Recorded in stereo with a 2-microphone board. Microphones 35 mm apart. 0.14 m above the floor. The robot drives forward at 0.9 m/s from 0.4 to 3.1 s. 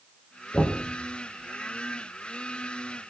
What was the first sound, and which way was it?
Knocking, 65° left (ahead or behind).